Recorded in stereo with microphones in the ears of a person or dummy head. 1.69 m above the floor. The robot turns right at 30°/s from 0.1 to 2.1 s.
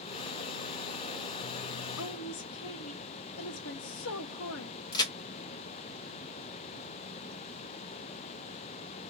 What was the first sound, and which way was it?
A woman speaking, 70° left (ahead or behind).